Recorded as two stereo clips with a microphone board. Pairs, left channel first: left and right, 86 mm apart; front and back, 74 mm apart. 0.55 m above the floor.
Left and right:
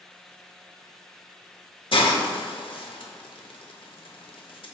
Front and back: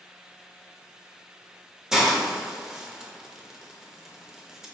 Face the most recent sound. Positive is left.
turn(degrees=100)